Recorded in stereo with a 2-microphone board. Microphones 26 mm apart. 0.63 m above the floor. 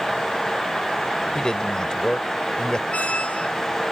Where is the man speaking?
30° left (ahead or behind).